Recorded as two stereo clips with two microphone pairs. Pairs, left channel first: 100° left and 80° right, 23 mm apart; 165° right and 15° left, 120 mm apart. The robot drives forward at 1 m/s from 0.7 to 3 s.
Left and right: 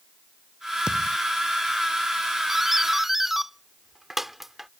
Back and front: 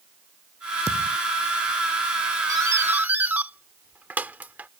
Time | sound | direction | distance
0.9 | a thud | 135° right | ?
2.5 | a doorbell | 15° right | ?